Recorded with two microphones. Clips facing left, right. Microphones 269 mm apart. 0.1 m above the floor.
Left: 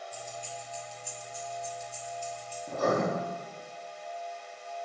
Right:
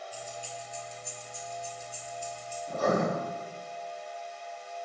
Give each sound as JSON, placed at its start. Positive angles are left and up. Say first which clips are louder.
{"t": 0.1, "sound": "keys jangling", "louder": "even", "side_deg": -5, "distance_m": 1.5}
{"t": 2.7, "sound": "writing", "louder": "even", "side_deg": 45, "distance_m": 2.5}